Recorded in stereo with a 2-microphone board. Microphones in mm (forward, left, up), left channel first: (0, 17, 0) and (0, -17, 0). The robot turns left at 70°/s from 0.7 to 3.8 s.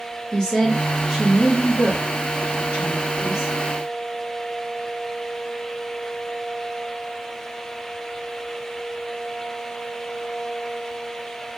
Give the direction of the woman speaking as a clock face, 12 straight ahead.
11 o'clock.